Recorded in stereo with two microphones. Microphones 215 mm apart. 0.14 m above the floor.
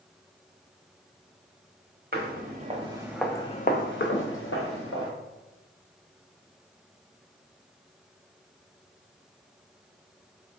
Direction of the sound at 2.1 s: 45° right (ahead or behind).